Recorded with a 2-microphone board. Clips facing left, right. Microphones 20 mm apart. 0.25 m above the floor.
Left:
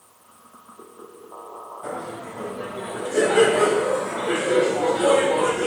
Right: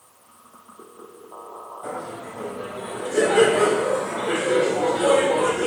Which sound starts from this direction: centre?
Laughter, at 1.8 s.